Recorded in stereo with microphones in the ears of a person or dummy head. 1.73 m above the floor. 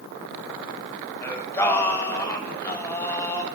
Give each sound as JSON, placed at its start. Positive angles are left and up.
{"t": 1.2, "sound": "singing", "side_deg": 15, "distance_m": 0.8}